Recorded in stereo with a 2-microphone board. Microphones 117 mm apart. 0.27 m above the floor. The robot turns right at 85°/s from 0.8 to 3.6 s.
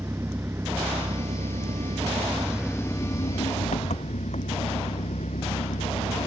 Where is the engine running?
160° right; by 6.3 s 80° left.